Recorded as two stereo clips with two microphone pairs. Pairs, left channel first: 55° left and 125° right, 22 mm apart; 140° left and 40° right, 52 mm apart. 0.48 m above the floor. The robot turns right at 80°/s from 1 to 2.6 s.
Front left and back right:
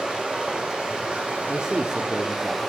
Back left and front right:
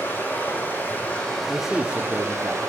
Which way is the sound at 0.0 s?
170° right.